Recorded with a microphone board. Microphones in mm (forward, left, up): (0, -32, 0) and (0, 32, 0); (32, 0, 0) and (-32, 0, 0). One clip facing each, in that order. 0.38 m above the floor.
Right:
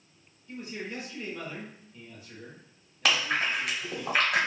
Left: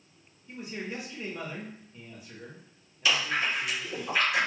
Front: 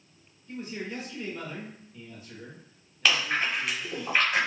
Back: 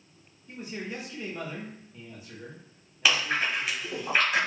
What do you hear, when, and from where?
0.5 s a man speaking: 135° left, 0.9 m
3.0 s chewing: 100° right, 1.4 m